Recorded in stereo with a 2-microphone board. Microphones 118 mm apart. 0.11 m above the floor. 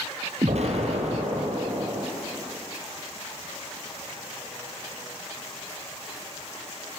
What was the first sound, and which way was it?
An explosion, 65° right (ahead or behind).